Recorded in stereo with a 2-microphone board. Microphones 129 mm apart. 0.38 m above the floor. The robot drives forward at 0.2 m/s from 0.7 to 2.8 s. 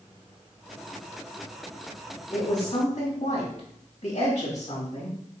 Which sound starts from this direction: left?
A woman speaking, at 2.3 s.